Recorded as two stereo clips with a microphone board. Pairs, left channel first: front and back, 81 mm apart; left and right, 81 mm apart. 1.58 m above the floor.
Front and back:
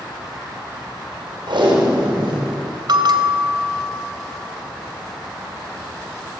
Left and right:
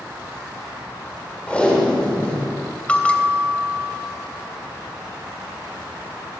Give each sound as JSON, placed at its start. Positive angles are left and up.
{"t": 1.5, "sound": "tape being pulled", "azimuth_deg": 165, "distance_m": 6.5}
{"t": 2.9, "sound": "a bell", "azimuth_deg": 165, "distance_m": 3.0}